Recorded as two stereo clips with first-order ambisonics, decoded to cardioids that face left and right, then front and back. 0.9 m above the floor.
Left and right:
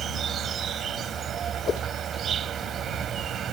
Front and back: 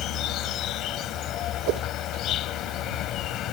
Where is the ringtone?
I don't hear a ringtone.